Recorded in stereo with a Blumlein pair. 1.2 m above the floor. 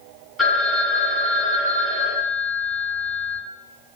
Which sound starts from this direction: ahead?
A phone ringing, at 0.4 s.